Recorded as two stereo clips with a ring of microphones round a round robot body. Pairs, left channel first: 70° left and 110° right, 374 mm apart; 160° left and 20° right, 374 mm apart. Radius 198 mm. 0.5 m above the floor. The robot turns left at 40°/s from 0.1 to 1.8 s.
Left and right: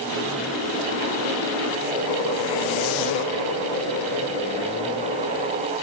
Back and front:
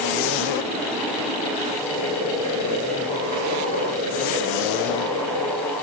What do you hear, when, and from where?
1.8 s boiling: 50° left, 7 m